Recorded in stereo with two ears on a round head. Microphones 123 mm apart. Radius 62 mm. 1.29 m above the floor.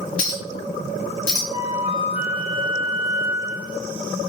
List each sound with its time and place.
0.2 s a clink: 65° left (ahead or behind), 1.6 m
1.5 s a flute: 60° left (ahead or behind), 1.9 m